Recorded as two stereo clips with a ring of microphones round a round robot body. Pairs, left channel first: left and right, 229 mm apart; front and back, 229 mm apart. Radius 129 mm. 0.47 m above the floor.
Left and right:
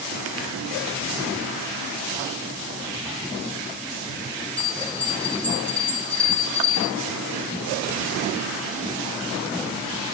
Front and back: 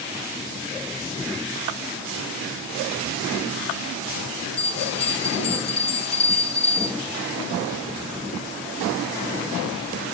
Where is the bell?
10° left, 3.5 m.